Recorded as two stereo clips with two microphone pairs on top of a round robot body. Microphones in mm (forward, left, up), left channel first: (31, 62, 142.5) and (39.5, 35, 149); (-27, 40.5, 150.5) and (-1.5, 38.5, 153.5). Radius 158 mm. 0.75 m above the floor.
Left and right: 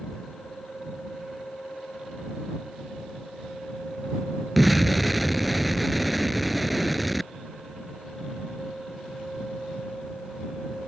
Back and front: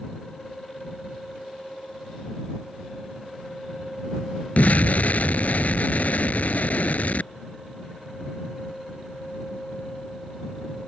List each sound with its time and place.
4.6 s an explosion: 155° right